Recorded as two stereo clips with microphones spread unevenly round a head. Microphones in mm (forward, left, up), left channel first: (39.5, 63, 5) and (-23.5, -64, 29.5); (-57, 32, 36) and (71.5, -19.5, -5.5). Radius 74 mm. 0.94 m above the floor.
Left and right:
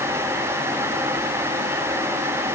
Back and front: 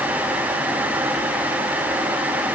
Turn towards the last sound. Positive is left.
No sound to turn to.